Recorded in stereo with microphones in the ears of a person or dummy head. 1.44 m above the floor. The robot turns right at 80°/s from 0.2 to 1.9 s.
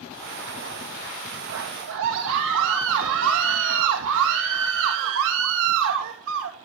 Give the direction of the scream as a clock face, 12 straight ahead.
3 o'clock.